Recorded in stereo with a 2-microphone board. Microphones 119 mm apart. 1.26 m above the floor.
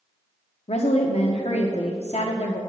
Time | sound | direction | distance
0.7 | a woman speaking | 65° left (ahead or behind) | 0.7 m